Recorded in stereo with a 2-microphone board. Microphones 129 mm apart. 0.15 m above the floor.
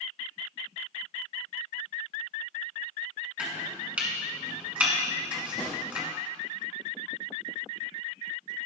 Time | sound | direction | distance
3.4 | chopping | 10° right (ahead or behind) | 1.5 m
5.6 | a drawer | 40° left (ahead or behind) | 3 m